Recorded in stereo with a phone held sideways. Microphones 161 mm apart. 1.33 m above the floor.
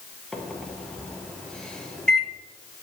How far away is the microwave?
About 0.9 m.